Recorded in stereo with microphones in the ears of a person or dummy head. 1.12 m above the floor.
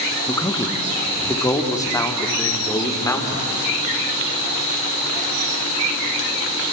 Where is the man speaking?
20° left (ahead or behind), 1.7 m.